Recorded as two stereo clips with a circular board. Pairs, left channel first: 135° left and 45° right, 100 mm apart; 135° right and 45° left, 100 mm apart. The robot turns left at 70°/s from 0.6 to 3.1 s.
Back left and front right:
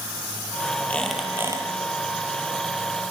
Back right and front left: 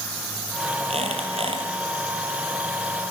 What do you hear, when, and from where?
0.9 s a squeak: 60° left, 6.5 m; by 1.6 s 10° left, 6.5 m